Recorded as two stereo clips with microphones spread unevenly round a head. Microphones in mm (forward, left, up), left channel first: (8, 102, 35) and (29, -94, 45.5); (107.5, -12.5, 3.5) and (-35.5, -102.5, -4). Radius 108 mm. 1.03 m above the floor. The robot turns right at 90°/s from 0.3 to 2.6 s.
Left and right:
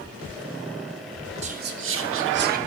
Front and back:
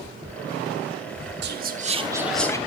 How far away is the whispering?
About 1.1 m.